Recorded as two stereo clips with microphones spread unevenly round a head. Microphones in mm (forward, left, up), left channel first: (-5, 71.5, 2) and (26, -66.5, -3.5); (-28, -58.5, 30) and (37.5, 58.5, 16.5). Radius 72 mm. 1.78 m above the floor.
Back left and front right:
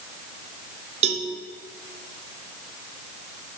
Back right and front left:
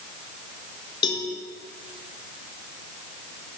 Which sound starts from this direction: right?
A cowbell, at 1.0 s.